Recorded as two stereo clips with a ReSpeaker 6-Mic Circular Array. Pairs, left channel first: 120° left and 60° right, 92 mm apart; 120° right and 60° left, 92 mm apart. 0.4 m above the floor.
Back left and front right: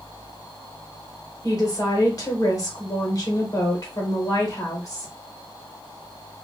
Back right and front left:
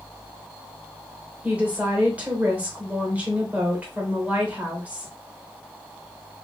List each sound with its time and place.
1.4 s a woman speaking: 125° left, 1.0 m